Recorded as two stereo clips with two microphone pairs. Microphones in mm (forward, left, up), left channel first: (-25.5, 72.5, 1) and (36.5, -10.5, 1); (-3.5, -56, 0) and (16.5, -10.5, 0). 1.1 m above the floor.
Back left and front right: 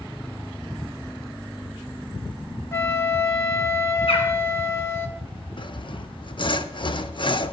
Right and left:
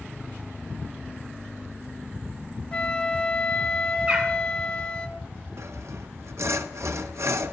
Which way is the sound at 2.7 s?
175° right.